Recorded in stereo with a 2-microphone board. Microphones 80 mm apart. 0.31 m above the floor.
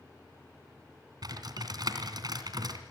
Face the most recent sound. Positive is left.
turn(degrees=-60)  # may be behind; listen again after turning